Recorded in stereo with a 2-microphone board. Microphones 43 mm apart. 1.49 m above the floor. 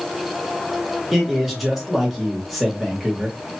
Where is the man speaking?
Centre (ahead or behind), 1.9 m.